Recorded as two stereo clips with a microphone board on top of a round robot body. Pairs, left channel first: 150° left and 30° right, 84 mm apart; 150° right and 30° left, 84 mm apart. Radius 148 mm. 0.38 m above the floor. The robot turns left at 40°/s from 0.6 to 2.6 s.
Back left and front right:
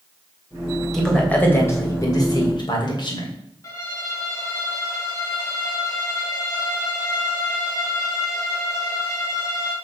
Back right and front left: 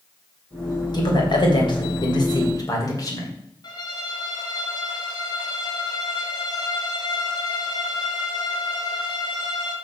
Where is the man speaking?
125° right, 3 m; by 3.3 s 170° left, 3 m.